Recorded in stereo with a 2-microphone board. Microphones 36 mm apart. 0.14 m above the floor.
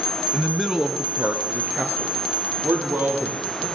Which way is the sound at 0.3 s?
20° left (ahead or behind).